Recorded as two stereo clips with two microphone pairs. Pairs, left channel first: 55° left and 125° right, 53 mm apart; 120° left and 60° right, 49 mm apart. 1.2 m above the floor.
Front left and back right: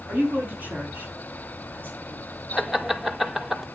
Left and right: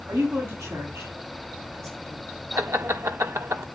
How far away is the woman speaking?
About 10 m.